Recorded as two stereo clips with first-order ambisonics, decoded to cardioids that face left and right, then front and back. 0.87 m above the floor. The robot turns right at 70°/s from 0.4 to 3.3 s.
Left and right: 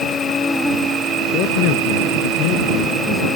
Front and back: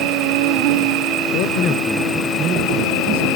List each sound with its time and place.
0.0 s an insect: 160° left; by 3.4 s 5° left
1.3 s a man speaking: 35° left; by 3.3 s 175° left